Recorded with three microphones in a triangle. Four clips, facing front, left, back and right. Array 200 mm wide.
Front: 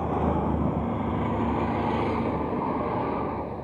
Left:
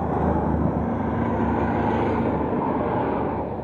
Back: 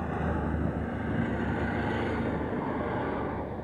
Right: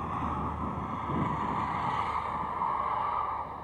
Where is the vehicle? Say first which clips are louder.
Left 10 dB, front 6 dB; 70° left; by 3.6 s 80° left.